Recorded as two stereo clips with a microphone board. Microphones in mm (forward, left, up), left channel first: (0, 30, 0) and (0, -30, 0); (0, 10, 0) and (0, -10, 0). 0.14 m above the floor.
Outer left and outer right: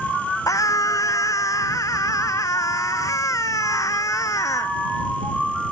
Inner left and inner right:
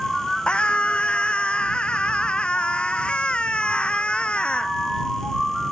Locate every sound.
0.5 s a scream: 70° left (ahead or behind)